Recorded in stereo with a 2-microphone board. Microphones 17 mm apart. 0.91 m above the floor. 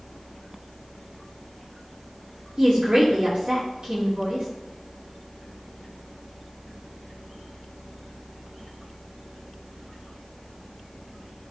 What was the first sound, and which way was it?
A woman speaking, 65° right (ahead or behind).